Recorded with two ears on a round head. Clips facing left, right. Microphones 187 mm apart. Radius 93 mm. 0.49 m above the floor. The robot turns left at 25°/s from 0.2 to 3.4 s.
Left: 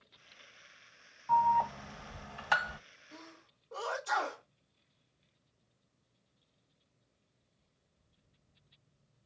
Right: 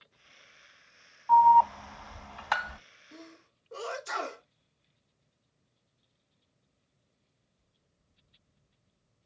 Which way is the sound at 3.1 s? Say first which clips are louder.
Right 4 dB; 20° right (ahead or behind).